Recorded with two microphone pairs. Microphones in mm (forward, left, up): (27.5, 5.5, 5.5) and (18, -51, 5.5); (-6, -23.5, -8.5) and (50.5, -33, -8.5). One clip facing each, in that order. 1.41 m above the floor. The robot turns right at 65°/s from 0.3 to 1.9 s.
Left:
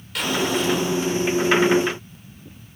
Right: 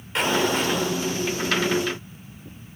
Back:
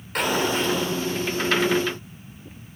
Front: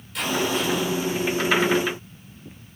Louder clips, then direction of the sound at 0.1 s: Right 1 dB, back 1 dB; 160° right.